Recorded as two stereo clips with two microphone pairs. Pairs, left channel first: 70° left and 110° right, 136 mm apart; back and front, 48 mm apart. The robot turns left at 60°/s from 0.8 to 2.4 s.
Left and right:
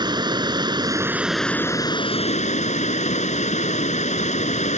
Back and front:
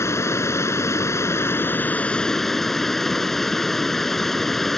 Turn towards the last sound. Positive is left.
turn(degrees=100)